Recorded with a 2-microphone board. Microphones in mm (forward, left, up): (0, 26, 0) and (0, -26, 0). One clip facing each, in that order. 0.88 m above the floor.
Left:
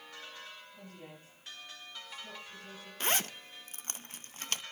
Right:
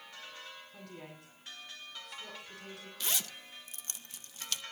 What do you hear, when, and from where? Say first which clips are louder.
0.7 s a woman speaking: right 1 dB; 80° right, 8 m
3.0 s a zipper: left 7 dB; 40° left (ahead or behind), 0.6 m